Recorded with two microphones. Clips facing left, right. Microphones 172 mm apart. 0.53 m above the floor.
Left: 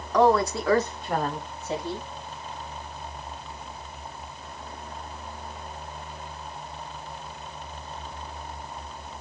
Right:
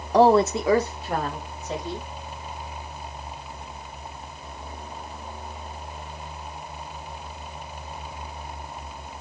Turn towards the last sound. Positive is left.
turn(degrees=10)  # may be behind; listen again after turning